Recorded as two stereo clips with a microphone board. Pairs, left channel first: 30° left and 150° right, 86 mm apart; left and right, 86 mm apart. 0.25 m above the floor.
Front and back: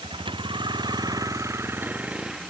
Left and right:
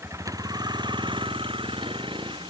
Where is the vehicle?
145° right; by 2.5 s 65° right.